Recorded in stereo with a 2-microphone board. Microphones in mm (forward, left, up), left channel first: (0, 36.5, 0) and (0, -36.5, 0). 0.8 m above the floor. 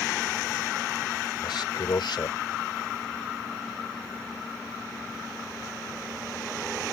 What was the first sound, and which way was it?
A man speaking, 80° left.